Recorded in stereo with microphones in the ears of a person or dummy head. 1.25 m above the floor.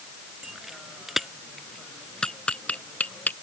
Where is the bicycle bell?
Centre (ahead or behind); by 3.3 s 10° left (ahead or behind).